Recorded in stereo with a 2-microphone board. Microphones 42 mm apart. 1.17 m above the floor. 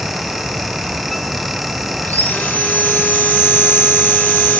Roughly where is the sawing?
Left.